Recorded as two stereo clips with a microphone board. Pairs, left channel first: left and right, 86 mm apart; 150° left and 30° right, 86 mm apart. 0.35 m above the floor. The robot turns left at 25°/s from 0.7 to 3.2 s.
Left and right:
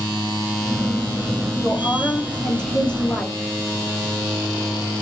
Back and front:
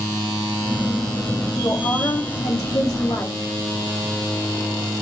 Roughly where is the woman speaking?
Behind.